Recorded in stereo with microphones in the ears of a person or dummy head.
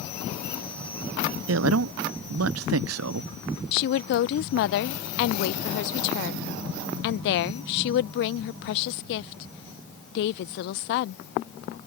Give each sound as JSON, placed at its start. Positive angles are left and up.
{"t": 1.5, "sound": "a man speaking", "side_deg": -90}
{"t": 3.7, "sound": "a woman speaking", "side_deg": 65}